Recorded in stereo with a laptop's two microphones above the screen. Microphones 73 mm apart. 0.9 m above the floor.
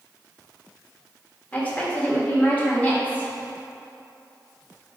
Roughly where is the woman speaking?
Left.